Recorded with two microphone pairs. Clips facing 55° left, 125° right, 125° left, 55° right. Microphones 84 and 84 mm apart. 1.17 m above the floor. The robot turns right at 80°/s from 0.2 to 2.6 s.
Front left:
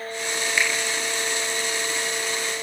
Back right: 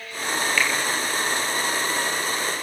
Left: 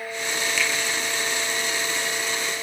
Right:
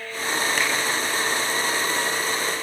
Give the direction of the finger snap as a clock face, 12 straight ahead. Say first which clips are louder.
Even, even; 1 o'clock.